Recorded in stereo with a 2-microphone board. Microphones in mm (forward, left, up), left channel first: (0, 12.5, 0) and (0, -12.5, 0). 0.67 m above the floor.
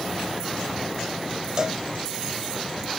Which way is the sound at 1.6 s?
25° right (ahead or behind).